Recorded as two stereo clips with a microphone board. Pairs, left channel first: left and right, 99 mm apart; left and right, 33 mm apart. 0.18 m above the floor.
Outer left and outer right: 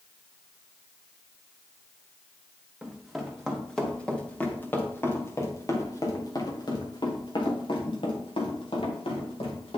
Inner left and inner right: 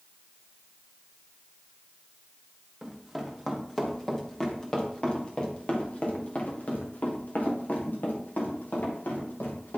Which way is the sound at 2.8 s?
5° right (ahead or behind).